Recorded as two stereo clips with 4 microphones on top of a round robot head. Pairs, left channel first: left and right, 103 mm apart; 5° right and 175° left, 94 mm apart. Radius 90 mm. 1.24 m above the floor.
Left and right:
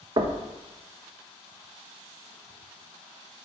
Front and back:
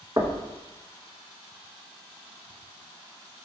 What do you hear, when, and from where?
0.2 s knocking: 120° right, 0.6 m